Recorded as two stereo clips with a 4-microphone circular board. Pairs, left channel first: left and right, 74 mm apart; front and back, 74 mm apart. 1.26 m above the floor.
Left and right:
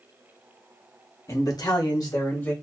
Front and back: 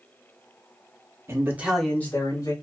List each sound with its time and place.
1.3 s a man speaking: 140° left, 1.2 m; by 2.5 s 35° left, 1.5 m